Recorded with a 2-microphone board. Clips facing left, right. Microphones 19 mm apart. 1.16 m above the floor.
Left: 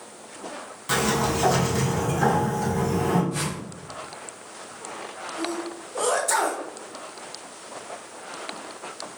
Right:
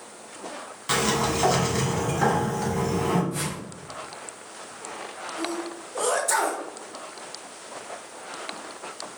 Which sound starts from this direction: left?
A whoosh, at 3.3 s.